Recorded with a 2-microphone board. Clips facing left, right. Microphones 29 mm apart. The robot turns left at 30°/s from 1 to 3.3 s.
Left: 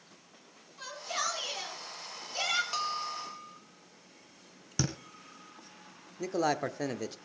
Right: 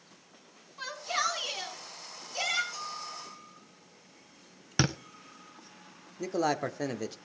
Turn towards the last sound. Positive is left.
turn(degrees=0)  # may be behind; listen again after turning